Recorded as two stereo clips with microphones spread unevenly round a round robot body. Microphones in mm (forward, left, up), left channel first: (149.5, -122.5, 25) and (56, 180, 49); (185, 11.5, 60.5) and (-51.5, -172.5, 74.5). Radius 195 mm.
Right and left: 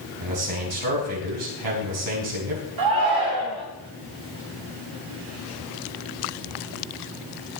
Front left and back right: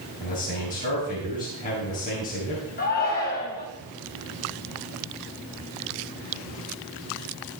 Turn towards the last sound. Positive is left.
turn(degrees=100)